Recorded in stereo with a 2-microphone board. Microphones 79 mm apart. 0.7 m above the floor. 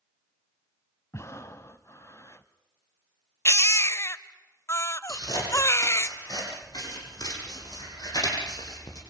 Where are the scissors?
60° left (ahead or behind), 8.5 m.